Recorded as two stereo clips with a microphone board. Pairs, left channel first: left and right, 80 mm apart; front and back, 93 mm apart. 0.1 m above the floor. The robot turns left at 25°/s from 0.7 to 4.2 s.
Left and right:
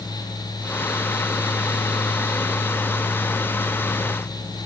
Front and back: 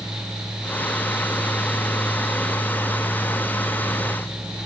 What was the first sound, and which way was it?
Only background noise.